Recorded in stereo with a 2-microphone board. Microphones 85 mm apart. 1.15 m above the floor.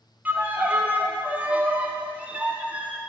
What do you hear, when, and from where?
0.2 s a violin: 15° right (ahead or behind), 0.5 m